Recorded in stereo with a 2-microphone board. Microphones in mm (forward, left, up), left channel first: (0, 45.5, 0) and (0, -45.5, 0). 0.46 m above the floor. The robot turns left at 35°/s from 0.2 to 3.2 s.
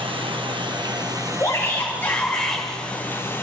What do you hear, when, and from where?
0.0 s running water: 100° right, 1.6 m; by 3.4 s 155° left, 1.6 m
1.4 s a shout: 50° left, 1.9 m; by 2.6 s 5° left, 1.9 m